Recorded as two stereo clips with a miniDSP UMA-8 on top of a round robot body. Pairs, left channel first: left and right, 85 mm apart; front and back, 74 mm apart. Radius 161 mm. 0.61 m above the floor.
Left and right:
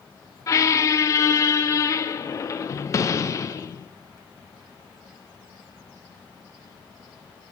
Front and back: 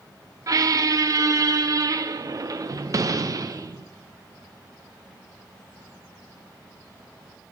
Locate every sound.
0.5 s a squeak: 145° left, 0.6 m